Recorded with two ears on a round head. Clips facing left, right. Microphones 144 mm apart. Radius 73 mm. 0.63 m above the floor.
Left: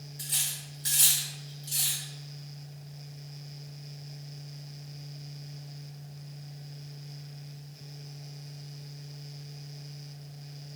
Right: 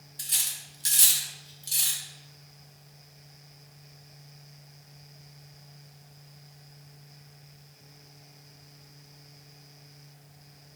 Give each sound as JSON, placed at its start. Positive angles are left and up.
{"t": 0.2, "sound": "cutlery clinking", "side_deg": -30, "distance_m": 0.6}